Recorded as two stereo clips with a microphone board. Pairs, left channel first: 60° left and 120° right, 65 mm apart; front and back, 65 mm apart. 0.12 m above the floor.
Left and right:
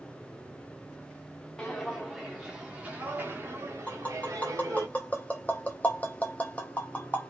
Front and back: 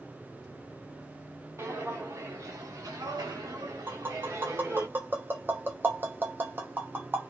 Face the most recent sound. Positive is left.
turn(degrees=125)